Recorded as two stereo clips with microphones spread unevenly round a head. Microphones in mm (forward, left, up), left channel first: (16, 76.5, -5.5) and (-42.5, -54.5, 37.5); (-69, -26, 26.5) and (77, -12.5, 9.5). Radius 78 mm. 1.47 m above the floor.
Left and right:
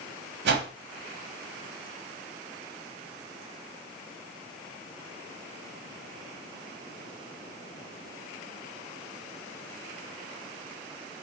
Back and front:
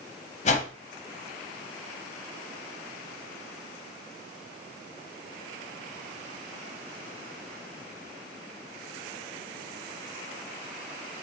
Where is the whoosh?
130° right, 0.6 m.